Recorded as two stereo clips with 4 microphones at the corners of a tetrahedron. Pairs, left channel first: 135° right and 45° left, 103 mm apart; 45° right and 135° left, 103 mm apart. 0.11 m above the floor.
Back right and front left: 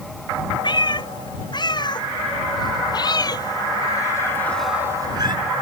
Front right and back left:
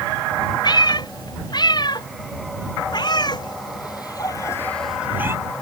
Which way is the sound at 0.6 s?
90° right.